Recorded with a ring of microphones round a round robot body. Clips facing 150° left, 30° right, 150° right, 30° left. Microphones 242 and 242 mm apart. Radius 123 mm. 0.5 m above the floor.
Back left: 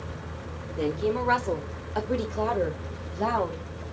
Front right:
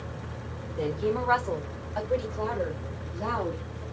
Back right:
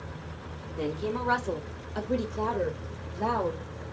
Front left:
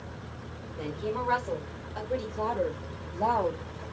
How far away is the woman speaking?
About 2.0 m.